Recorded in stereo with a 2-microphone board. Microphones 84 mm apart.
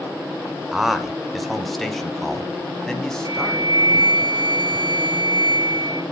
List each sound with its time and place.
0.7 s a man speaking: 5° right (ahead or behind), 1.0 m; by 4.2 s 10° left (ahead or behind), 3 m
3.2 s a flute: 60° right (ahead or behind), 0.6 m